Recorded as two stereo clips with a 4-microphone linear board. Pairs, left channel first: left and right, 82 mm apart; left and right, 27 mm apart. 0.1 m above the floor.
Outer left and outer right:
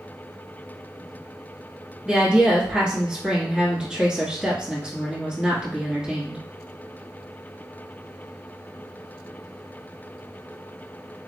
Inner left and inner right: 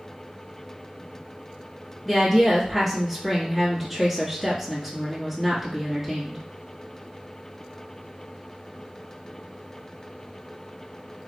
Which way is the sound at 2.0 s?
10° right (ahead or behind).